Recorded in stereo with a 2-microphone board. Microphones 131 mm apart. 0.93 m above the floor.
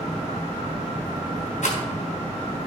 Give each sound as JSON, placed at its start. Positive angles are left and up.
{"t": 1.6, "sound": "a rattle", "side_deg": 60, "distance_m": 3.5}